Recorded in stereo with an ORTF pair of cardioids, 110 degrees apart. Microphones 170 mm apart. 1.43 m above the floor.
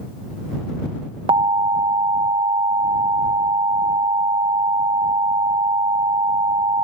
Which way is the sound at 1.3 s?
30° right.